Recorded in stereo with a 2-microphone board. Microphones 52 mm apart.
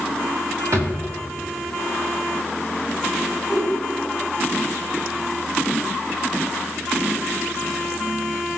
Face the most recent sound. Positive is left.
turn(degrees=-20)  # may be behind; listen again after turning